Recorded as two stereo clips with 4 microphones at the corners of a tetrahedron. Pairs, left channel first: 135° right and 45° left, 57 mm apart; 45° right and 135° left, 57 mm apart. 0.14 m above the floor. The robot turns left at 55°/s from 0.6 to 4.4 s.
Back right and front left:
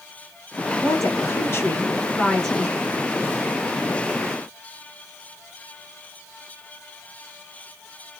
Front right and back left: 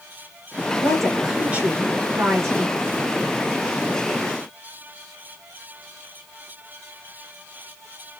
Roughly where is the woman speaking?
Behind right.